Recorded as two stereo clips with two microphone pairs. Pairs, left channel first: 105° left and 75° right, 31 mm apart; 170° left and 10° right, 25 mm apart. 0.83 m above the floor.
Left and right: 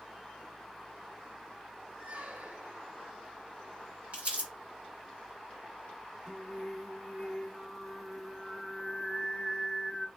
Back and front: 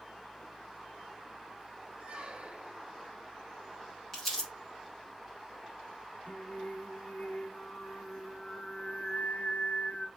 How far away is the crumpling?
About 3 m.